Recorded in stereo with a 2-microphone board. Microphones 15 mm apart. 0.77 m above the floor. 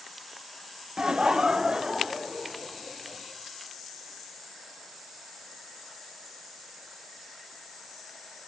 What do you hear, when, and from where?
1.0 s laughter: 45° right (ahead or behind), 0.6 m; by 3.2 s 60° right (ahead or behind), 3 m